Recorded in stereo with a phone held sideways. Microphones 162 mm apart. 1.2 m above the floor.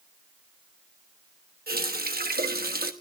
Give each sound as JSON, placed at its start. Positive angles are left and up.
{"t": 1.7, "sound": "a running tap", "side_deg": -75, "distance_m": 1.1}